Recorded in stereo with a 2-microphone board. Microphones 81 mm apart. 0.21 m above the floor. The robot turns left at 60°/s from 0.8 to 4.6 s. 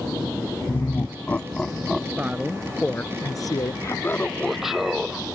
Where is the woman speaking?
160° right; by 3.7 s 110° left.